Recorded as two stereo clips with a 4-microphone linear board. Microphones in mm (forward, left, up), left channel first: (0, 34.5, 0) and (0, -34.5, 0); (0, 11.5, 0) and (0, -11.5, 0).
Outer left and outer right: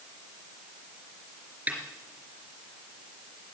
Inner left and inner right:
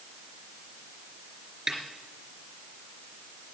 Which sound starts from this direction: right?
A snare drum, at 1.7 s.